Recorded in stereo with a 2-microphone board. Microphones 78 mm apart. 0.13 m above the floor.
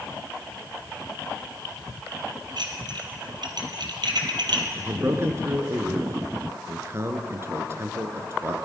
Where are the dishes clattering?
65° right (ahead or behind), 2.5 m.